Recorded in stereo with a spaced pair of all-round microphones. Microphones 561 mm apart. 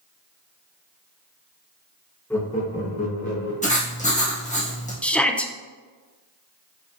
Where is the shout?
Centre (ahead or behind), 0.7 m.